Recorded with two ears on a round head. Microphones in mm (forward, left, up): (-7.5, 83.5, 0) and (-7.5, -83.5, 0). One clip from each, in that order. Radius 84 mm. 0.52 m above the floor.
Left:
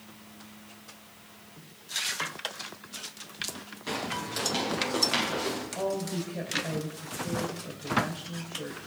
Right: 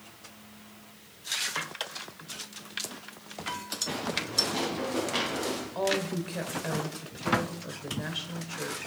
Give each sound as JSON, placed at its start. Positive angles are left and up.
{"t": 3.9, "sound": "footsteps", "side_deg": 65, "distance_m": 8.5}
{"t": 5.8, "sound": "a woman speaking", "side_deg": -45, "distance_m": 1.5}